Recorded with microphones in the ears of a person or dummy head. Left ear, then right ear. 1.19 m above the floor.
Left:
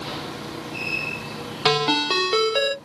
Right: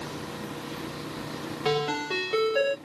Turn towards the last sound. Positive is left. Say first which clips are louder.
# left 8 dB
turn(degrees=40)  # may be behind; listen again after turning